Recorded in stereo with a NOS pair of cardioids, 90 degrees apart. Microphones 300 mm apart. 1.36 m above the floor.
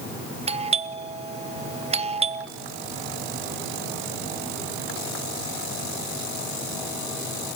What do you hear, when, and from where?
0.5 s a doorbell: 20° right, 1.1 m